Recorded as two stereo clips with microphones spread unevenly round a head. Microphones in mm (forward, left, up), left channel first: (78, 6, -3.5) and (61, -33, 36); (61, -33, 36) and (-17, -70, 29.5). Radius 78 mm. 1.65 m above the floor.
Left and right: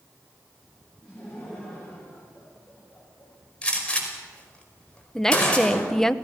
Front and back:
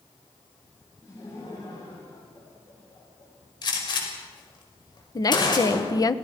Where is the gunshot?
5° right, 5.5 m.